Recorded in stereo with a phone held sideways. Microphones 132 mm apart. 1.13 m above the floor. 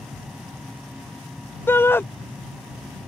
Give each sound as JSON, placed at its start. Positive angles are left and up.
{"t": 0.0, "sound": "a fan", "side_deg": 0}
{"t": 1.7, "sound": "a shout", "side_deg": 15}